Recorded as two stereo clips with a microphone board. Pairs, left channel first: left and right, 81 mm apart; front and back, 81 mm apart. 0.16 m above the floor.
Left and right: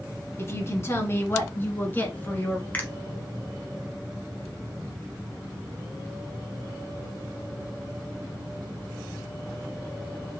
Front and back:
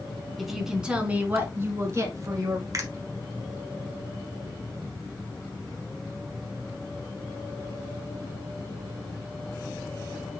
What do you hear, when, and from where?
0.4 s a woman speaking: 85° left, 1.3 m; by 2.6 s 155° left, 1.8 m
2.7 s a finger snap: 155° left, 1.3 m